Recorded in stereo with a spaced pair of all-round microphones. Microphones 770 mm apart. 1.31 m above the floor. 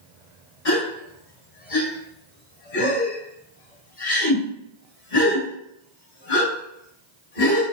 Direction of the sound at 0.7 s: 85° left.